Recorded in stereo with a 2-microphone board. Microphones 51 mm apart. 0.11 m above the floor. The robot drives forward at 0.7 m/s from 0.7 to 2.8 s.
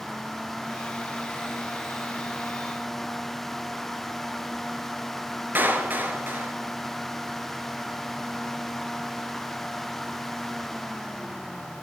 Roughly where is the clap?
Right.